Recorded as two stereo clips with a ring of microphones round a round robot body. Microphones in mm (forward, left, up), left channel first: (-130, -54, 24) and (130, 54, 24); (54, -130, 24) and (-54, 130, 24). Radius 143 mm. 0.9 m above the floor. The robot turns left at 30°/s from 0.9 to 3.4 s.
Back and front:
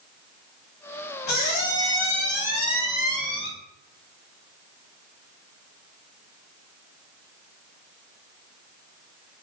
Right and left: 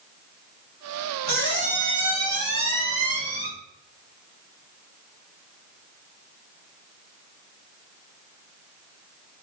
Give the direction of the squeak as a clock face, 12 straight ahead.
6 o'clock.